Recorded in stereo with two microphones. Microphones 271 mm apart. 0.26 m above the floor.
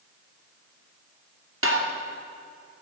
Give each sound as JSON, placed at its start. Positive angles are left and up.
{"t": 1.6, "sound": "tapping", "side_deg": -50, "distance_m": 2.5}